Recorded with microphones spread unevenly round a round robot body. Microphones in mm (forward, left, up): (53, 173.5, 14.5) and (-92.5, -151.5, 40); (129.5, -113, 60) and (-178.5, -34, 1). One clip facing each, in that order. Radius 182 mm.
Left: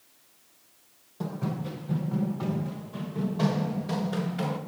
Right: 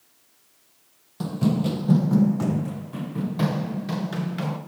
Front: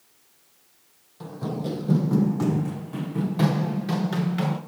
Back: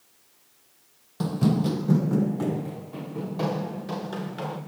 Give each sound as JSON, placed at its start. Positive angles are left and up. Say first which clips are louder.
{"t": 1.2, "sound": "running footsteps", "louder": "right 10 dB, back 7 dB", "azimuth_deg": -170, "distance_m": 1.0}